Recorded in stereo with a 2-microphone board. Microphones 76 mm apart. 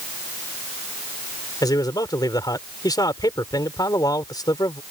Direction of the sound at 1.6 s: 60° left (ahead or behind).